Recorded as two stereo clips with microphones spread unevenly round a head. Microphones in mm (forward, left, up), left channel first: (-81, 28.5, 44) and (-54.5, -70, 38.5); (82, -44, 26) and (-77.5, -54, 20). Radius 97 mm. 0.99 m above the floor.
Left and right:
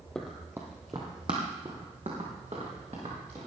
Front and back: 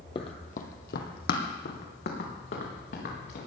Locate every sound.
0.1 s running footsteps: 30° left, 1.1 m; by 3.5 s 15° right, 5 m